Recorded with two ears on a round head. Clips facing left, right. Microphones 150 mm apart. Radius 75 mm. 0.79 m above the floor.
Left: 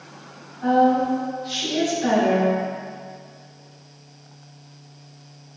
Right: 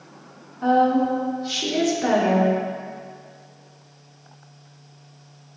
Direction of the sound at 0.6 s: 60° right (ahead or behind).